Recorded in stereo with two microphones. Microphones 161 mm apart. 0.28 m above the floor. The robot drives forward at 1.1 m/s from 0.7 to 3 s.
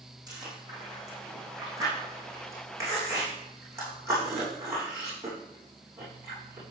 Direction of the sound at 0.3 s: 25° right (ahead or behind).